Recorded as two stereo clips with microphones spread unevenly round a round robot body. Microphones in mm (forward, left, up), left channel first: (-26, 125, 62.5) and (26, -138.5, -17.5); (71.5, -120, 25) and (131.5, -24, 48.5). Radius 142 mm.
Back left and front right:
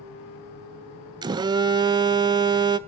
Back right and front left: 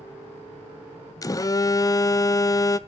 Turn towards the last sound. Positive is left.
turn(degrees=-120)